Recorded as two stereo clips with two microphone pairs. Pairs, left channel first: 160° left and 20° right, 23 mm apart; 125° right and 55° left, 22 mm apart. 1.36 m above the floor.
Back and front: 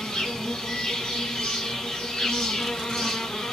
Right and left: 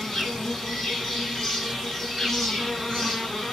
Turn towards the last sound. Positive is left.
turn(degrees=175)